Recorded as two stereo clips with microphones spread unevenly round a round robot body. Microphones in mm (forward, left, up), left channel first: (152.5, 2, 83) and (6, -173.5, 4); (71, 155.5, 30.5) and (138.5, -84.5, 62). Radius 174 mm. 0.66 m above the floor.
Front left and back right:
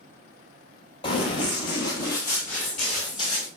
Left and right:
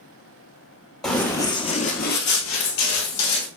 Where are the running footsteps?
10° left, 0.9 m; by 3.5 s 130° left, 1.1 m.